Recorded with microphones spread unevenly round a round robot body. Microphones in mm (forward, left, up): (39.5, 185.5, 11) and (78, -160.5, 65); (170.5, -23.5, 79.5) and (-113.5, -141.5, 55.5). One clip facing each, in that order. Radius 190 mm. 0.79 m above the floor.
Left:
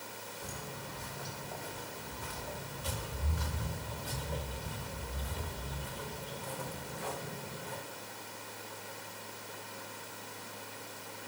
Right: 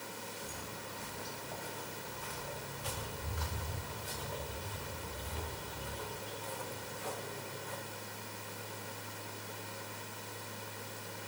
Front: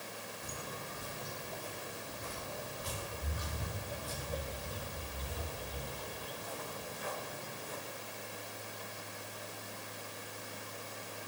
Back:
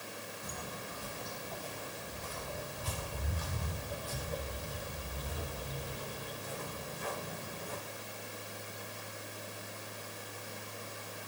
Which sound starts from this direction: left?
Footsteps, at 0.4 s.